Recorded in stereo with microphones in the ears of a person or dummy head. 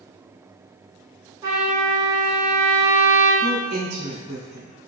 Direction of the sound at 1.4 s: 10° right (ahead or behind).